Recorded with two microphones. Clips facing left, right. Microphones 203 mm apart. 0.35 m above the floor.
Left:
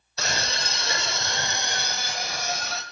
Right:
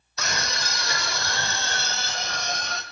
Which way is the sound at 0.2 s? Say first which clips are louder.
Left 1 dB; 30° left (ahead or behind).